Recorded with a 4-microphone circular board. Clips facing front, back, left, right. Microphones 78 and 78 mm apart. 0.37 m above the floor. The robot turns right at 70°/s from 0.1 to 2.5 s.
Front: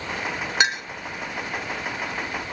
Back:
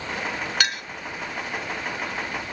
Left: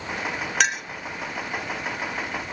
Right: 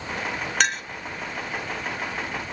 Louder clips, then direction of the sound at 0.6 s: Front 5 dB, even; straight ahead.